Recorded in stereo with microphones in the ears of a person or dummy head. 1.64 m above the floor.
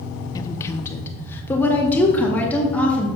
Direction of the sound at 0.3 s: 25° left (ahead or behind).